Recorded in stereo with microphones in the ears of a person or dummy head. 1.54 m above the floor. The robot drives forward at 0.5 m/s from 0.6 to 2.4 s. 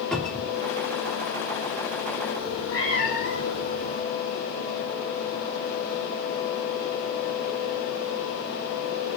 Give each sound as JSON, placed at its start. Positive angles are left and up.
{"t": 0.1, "sound": "a cupboard door", "side_deg": 5, "distance_m": 1.7}
{"t": 2.4, "sound": "a cat meowing", "side_deg": 50, "distance_m": 1.0}